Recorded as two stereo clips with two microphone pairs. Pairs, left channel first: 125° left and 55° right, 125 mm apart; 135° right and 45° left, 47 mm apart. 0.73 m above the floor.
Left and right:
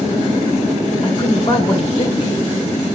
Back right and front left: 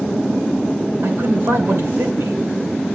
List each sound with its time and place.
1.0 s a man speaking: 80° left, 3 m